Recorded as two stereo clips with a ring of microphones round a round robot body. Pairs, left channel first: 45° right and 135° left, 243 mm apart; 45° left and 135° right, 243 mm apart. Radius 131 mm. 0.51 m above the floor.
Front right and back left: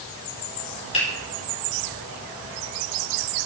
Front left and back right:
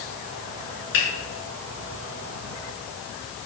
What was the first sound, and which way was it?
A finger snap, 20° left.